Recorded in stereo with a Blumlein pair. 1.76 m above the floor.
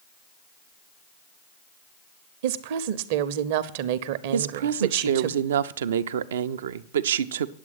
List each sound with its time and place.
2.4 s a woman speaking: 50° right, 0.8 m
4.3 s a woman speaking: 60° right, 0.6 m